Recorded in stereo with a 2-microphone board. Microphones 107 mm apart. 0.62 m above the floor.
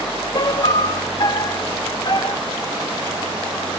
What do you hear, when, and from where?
0.3 s a piano: 45° left (ahead or behind)